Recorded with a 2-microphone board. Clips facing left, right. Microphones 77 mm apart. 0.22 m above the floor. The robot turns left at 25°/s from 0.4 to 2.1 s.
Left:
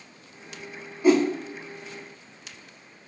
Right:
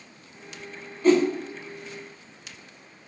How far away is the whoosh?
About 0.5 m.